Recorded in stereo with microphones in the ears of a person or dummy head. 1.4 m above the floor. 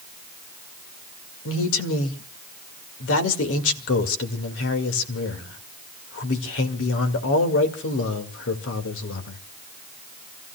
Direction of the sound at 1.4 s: 85° left.